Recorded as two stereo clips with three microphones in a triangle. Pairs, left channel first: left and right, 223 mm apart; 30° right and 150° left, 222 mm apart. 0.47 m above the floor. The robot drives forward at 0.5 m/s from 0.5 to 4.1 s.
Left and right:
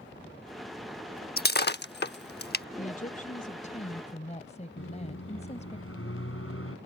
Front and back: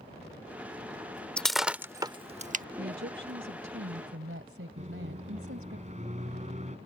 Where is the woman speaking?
135° left; by 5.8 s 145° left.